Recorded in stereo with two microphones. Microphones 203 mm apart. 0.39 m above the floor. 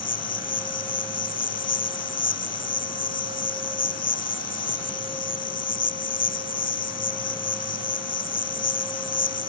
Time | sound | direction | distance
0.0 | an insect | 75° left (ahead or behind) | ?